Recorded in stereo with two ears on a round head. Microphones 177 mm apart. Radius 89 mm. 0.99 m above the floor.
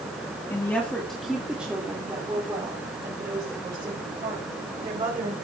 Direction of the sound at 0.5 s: 15° left (ahead or behind).